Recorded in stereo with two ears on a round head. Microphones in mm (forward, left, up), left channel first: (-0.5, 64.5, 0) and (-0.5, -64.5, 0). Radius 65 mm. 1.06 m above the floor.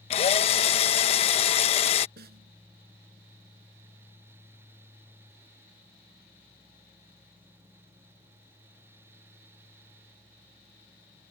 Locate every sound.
0.1 s a drill: 45° left (ahead or behind)
2.2 s a snare drum: 80° right